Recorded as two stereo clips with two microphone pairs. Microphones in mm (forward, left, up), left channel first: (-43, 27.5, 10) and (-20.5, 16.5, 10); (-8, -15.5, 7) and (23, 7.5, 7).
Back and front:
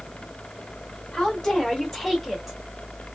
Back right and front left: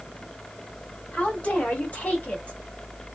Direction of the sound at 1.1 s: 160° right.